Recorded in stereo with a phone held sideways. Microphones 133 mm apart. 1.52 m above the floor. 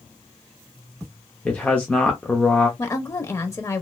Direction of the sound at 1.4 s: 10° left (ahead or behind).